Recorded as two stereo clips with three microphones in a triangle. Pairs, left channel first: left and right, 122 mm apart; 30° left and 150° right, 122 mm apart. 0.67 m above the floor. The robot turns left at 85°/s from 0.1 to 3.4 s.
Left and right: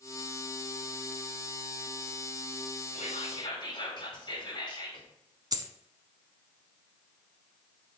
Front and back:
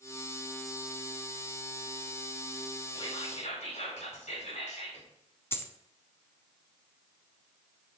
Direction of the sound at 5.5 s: 40° right.